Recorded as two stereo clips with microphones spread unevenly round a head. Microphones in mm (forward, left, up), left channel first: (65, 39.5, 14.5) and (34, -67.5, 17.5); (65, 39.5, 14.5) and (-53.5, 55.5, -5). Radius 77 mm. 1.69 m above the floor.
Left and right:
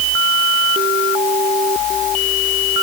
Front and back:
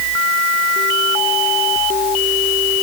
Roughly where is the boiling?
No boiling in this recording.